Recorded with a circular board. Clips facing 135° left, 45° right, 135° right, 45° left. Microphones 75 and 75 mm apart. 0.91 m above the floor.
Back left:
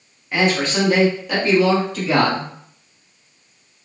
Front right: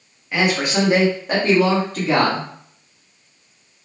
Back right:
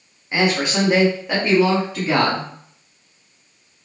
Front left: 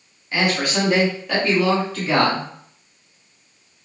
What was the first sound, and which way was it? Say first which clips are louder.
A man speaking: back left 1 dB, back right 2 dB; 135° right.